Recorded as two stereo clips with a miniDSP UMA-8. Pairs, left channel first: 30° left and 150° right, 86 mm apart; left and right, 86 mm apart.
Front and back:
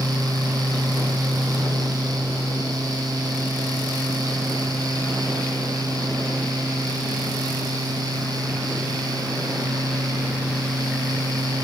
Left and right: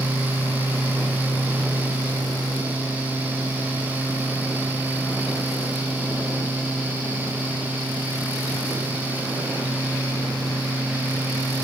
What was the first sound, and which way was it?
Only background noise.